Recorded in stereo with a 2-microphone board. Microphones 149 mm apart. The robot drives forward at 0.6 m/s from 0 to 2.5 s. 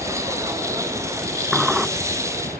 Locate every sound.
0.0 s a helicopter: 65° right (ahead or behind)
1.5 s a sliding door: 5° right (ahead or behind)